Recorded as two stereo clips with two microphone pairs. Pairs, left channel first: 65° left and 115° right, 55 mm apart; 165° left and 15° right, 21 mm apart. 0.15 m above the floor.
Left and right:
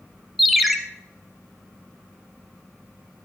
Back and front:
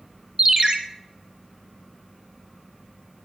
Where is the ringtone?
30° right, 1.0 m.